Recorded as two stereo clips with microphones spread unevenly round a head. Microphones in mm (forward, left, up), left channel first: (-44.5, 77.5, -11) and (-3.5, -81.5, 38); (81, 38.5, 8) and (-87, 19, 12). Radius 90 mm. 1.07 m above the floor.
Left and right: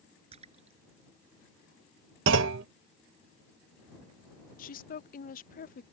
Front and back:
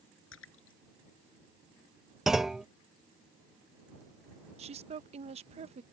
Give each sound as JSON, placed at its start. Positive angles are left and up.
{"t": 0.3, "sound": "a splash", "azimuth_deg": -20}
{"t": 2.3, "sound": "a clunk", "azimuth_deg": -85}
{"t": 4.6, "sound": "a woman speaking", "azimuth_deg": 135}